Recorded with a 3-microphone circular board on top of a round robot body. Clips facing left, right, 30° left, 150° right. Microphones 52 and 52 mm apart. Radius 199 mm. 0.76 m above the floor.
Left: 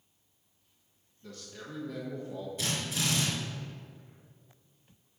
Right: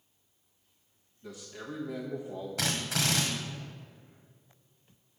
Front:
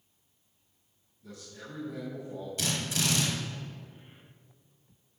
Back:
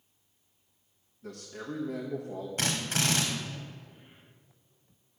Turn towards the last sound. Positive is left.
turn(degrees=-105)